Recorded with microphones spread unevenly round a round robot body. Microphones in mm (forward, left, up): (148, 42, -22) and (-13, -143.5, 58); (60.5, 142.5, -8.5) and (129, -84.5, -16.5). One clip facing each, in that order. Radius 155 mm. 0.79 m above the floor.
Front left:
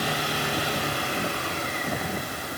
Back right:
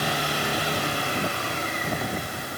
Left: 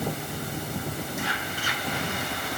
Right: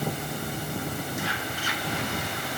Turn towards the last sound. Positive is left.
No sound to turn to.